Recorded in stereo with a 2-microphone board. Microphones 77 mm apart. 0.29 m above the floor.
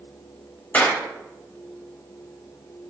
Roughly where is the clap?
Left.